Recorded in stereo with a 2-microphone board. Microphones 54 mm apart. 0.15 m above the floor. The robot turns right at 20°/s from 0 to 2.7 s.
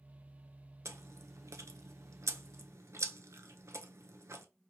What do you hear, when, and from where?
0.8 s chewing: 60° right (ahead or behind), 0.6 m